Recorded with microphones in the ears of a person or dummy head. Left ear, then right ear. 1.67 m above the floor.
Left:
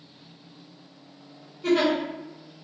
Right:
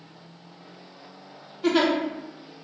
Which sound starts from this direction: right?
A giggle, at 1.6 s.